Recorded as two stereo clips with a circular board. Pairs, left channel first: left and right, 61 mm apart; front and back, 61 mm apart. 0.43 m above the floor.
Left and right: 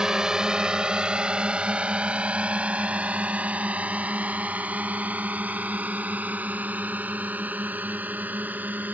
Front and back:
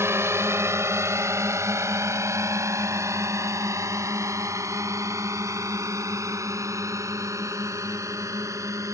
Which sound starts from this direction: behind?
A drone, at 0.0 s.